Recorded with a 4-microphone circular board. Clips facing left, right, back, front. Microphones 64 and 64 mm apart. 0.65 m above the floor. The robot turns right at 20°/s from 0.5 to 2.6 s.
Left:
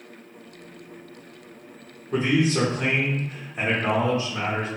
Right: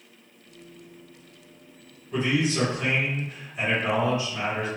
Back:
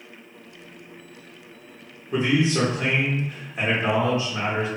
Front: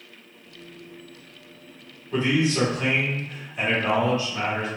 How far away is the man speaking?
About 1.0 m.